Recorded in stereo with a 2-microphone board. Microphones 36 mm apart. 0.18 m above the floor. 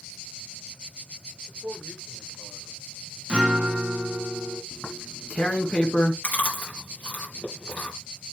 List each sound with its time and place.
1.5 s a man speaking: 55° right (ahead or behind), 6.5 m; by 3.2 s 60° right (ahead or behind), 7 m
3.3 s a guitar: 30° right (ahead or behind), 1.9 m
4.7 s tearing paper: 40° left (ahead or behind), 2.5 m
6.2 s chewing: 50° left (ahead or behind), 3.5 m